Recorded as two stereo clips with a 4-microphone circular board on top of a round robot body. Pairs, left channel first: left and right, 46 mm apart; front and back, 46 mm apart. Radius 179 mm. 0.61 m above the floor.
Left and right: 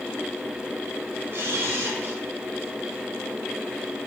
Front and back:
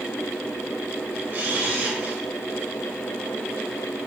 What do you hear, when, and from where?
1.3 s a camera shutter: 130° right, 1.8 m